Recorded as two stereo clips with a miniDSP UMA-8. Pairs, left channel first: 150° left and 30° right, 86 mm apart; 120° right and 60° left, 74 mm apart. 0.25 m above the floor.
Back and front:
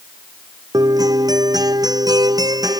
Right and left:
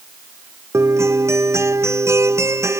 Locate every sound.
0.7 s a guitar: 10° left